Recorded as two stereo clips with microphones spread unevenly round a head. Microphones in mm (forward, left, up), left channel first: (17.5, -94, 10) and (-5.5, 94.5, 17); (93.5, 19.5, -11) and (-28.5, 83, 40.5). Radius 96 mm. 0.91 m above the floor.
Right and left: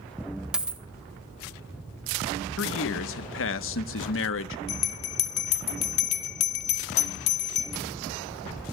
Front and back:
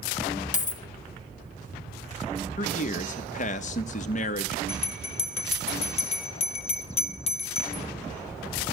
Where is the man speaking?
60° right, 1.1 m.